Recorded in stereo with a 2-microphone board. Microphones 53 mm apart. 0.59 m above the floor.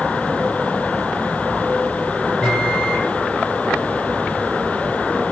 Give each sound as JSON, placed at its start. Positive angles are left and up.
{"t": 2.4, "sound": "a microwave", "side_deg": 20, "distance_m": 3.5}